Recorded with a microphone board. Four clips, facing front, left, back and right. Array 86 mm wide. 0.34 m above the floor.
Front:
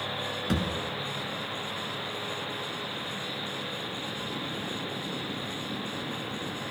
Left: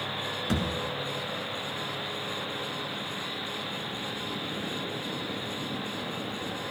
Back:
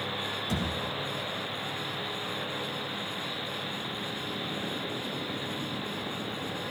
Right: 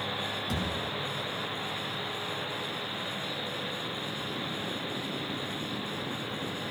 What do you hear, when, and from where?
0.5 s a thud: 35° left, 1.9 m